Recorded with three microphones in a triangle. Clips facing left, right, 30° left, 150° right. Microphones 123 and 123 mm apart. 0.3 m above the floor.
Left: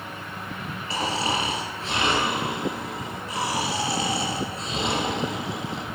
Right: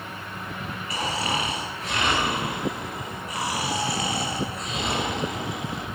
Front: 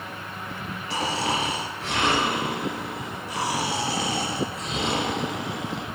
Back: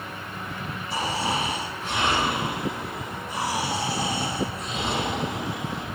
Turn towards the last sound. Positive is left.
turn(degrees=30)